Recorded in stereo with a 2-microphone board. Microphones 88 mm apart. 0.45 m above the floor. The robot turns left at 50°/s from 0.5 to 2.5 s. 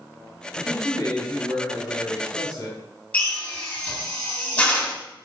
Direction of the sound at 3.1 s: 15° left (ahead or behind).